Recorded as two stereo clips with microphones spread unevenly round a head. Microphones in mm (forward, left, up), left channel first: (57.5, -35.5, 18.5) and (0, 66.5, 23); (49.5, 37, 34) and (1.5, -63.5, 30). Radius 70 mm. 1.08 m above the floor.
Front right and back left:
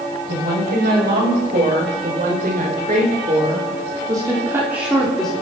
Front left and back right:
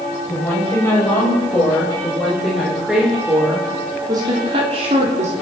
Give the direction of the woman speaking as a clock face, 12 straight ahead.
7 o'clock.